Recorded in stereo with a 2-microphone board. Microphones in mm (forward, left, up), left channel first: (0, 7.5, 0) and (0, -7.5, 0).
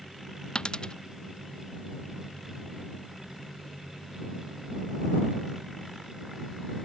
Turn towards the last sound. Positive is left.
turn(degrees=55)  # may be behind; listen again after turning